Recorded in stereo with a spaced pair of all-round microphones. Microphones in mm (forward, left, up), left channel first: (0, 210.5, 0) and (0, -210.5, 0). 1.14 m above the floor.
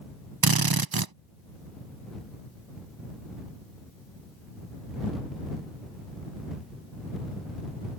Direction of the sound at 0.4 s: 60° right (ahead or behind).